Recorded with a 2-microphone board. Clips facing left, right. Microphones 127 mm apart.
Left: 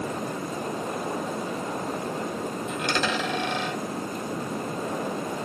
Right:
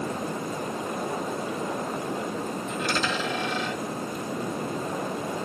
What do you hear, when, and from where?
2.7 s a dropped coin: 60° left (ahead or behind), 1.9 m